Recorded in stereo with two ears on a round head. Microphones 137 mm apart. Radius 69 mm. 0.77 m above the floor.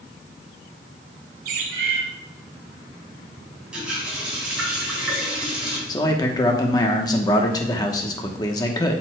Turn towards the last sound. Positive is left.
turn(degrees=25)  # may be behind; listen again after turning